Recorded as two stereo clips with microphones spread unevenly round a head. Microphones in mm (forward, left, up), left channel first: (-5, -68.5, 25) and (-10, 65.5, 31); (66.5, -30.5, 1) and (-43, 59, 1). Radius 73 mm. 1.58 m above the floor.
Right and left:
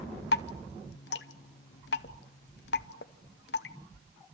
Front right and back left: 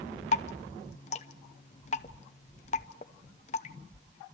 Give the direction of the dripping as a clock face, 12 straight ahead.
3 o'clock.